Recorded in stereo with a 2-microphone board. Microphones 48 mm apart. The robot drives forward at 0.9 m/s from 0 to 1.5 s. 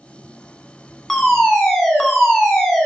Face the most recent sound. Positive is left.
turn(degrees=5)  # may be behind; listen again after turning